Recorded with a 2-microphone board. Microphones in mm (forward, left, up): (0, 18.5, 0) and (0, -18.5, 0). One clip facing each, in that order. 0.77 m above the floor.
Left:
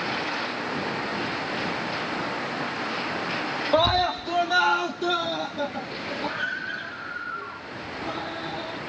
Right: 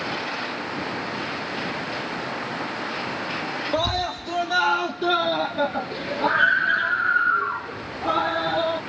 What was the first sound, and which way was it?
A scream, 25° left (ahead or behind).